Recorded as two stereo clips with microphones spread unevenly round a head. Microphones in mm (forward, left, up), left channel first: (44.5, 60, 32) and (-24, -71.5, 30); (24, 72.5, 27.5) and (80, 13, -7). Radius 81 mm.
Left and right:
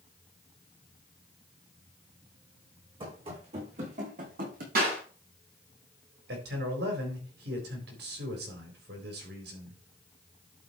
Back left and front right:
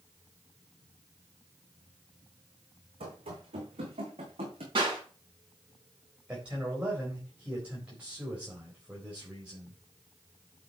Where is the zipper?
I don't hear a zipper.